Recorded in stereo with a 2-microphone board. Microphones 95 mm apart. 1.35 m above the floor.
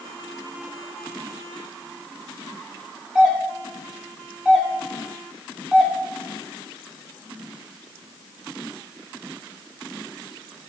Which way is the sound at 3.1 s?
5° right (ahead or behind).